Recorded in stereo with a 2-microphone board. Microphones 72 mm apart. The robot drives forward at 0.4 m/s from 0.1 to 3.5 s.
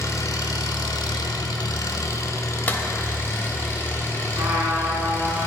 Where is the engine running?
55° left (ahead or behind), 0.7 m; by 5.5 s 35° left (ahead or behind), 1.1 m.